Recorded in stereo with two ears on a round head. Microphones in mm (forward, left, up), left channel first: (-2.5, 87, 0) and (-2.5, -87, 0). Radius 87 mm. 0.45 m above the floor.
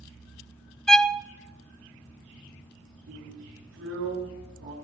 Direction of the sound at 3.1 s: 65° right (ahead or behind).